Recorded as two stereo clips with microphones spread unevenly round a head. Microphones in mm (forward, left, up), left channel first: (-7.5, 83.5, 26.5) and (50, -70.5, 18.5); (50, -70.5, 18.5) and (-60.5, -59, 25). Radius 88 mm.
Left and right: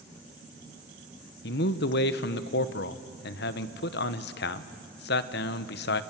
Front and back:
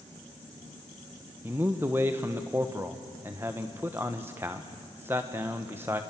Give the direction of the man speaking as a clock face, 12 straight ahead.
9 o'clock.